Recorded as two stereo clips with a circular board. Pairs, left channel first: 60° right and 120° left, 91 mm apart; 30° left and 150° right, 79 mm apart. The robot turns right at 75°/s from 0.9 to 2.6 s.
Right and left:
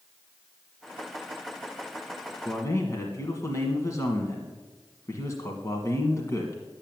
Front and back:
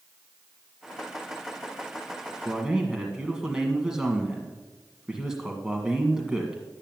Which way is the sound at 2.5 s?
85° right.